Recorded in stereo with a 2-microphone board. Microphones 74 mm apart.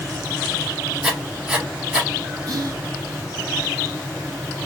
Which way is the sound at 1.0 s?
15° right (ahead or behind).